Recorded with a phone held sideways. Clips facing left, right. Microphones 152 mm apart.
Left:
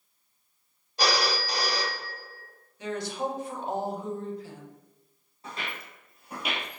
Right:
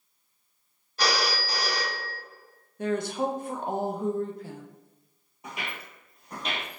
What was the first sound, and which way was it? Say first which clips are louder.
A phone ringing: left 1 dB; 20° left (ahead or behind).